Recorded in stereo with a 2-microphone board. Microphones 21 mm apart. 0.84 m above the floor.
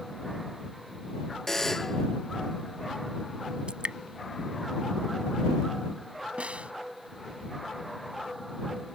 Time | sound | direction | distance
1.5 | a buzzer | 15° left (ahead or behind) | ?
3.7 | dripping | 50° right (ahead or behind) | ?
6.4 | a snare drum | 80° right | ?